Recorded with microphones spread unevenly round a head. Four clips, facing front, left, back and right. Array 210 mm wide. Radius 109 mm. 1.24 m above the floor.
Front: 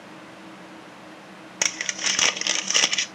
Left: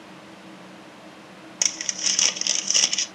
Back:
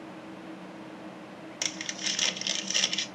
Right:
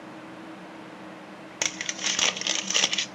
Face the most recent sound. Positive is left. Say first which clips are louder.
# right 3 dB, front 9 dB
turn(degrees=-20)